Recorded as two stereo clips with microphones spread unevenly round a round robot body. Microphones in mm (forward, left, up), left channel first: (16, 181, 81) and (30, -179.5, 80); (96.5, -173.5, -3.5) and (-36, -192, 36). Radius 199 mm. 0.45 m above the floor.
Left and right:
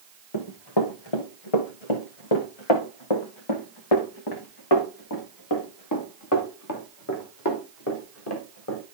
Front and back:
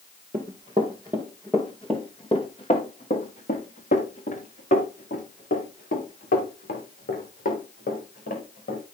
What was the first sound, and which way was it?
Running footsteps, 125° left.